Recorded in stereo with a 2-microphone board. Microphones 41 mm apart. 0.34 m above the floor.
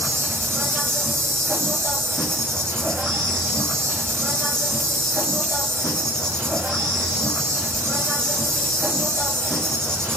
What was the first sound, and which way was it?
An insect, 85° right.